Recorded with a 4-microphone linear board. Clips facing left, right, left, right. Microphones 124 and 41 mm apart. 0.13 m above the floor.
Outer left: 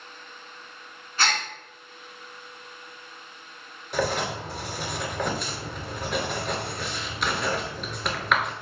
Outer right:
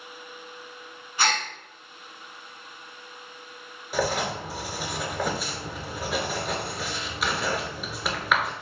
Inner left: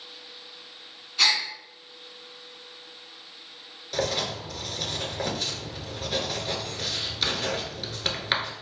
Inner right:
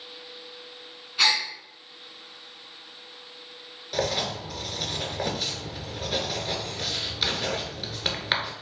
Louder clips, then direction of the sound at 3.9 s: Even, inner right 1 dB; centre (ahead or behind).